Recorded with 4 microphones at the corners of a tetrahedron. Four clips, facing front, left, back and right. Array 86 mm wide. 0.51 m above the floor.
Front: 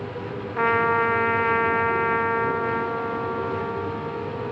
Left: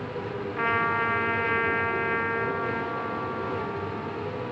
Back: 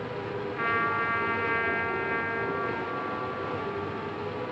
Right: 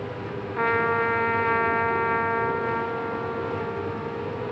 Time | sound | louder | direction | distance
0.6 | a trumpet | right 3 dB, front 8 dB | 30° right | 1.0 m